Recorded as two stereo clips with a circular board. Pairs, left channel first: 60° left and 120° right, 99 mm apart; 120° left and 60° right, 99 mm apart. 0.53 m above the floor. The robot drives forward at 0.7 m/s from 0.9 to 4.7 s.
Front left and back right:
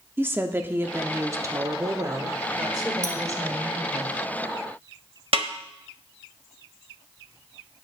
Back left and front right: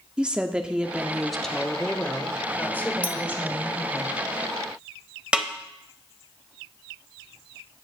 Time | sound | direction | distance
0.2 | a woman speaking | 125° right | 0.8 m
3.0 | a clink | 15° left | 1.0 m
5.3 | a snare drum | 140° right | 1.0 m